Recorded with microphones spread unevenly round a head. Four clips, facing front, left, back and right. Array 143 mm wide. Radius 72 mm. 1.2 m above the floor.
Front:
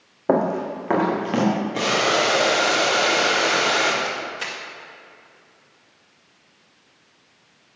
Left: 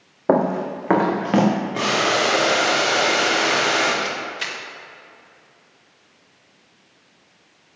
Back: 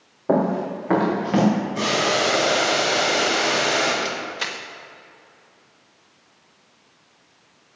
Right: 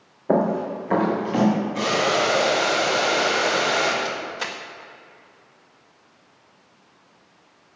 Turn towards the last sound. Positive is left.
turn(degrees=-125)